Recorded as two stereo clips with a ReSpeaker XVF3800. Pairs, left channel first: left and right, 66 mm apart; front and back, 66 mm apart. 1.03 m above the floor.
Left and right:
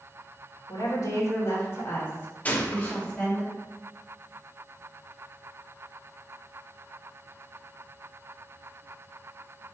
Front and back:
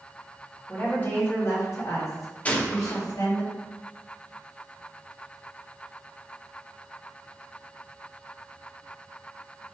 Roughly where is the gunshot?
Ahead left.